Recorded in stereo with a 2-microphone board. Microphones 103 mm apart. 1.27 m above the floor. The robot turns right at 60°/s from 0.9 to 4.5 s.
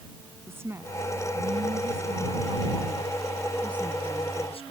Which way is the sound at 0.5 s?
160° right.